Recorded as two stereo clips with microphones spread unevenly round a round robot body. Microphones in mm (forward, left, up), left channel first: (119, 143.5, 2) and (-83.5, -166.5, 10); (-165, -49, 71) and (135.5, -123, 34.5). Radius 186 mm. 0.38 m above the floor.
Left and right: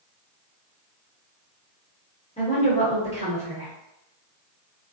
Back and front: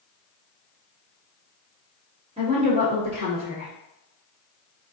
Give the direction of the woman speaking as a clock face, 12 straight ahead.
12 o'clock.